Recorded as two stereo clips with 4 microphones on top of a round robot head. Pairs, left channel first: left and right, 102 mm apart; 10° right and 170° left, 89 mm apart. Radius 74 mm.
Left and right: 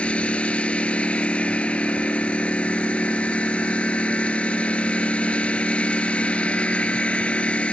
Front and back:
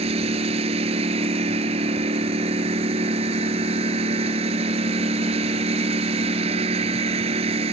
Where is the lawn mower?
170° left.